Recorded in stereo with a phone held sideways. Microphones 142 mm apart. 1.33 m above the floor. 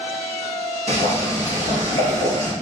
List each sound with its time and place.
0.9 s boiling: 60° left (ahead or behind), 1.6 m